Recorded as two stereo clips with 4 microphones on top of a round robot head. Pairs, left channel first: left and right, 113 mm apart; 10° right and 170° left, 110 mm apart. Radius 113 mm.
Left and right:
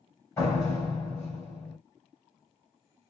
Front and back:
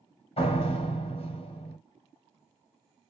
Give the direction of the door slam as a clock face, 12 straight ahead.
11 o'clock.